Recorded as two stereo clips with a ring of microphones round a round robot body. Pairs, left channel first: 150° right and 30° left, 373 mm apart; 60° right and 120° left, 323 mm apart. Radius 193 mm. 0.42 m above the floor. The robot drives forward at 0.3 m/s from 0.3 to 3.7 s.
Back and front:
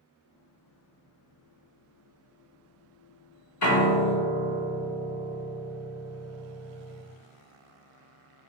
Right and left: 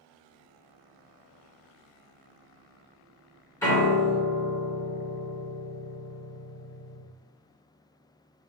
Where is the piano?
140° right, 0.8 m.